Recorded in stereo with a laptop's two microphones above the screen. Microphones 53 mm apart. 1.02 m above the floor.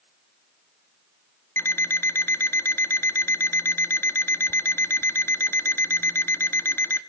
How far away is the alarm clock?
About 0.6 m.